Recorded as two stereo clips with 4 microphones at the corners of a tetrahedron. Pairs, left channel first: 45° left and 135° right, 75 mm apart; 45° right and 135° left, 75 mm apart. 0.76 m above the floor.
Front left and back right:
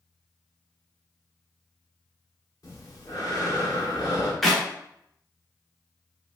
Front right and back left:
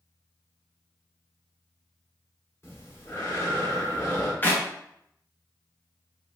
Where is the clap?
40° right, 0.8 m.